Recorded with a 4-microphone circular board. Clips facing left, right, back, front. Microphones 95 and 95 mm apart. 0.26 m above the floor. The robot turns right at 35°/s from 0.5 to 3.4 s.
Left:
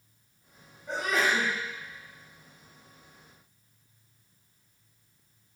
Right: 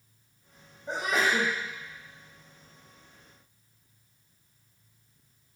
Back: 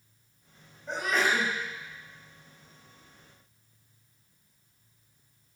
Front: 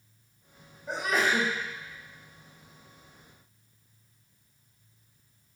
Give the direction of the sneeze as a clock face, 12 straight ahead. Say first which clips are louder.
Even, even; 2 o'clock.